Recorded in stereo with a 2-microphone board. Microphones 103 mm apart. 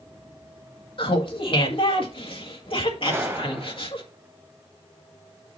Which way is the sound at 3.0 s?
20° right (ahead or behind).